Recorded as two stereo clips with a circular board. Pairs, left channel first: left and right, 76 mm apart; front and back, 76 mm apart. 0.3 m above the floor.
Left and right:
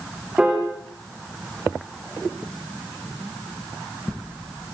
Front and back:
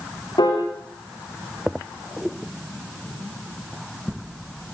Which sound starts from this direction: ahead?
A piano, at 0.4 s.